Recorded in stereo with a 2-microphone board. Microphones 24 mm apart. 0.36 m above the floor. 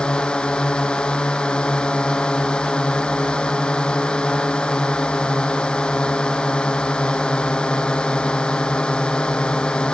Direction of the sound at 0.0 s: 45° left (ahead or behind).